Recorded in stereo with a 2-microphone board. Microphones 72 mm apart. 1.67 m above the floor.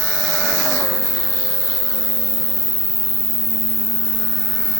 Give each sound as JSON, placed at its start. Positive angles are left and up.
{"t": 0.0, "sound": "an insect", "side_deg": -60, "distance_m": 1.3}